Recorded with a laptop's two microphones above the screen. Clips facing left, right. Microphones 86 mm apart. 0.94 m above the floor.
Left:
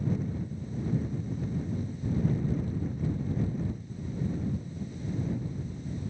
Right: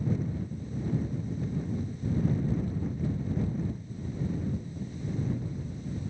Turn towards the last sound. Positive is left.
No sound to turn to.